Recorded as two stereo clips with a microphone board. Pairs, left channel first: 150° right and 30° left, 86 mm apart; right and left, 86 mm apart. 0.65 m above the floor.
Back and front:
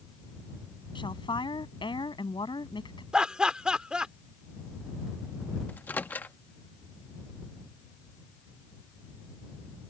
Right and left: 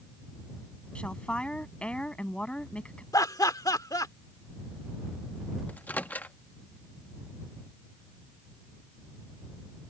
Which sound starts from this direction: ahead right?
Laughter, at 3.1 s.